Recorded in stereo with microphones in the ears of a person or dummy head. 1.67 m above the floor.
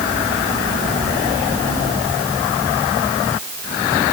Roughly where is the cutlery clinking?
No cutlery clinking in this recording.